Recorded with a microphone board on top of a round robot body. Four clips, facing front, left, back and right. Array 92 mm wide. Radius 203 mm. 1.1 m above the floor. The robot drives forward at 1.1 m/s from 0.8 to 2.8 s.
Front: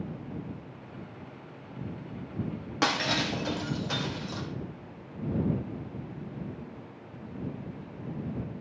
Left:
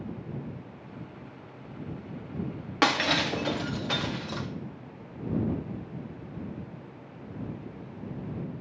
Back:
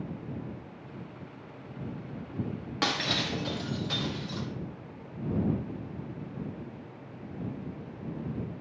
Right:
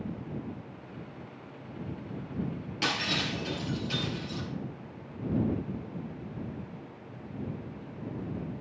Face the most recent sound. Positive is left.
turn(degrees=70)